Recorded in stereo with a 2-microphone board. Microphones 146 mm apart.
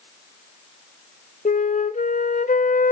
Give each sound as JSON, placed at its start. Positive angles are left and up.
{"t": 1.4, "sound": "a flute", "side_deg": 60, "distance_m": 0.7}